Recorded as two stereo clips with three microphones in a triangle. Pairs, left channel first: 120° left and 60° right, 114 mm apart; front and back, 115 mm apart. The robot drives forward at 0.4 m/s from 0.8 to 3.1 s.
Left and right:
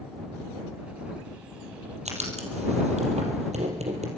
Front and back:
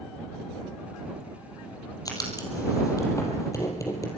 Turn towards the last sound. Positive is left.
turn(degrees=-60)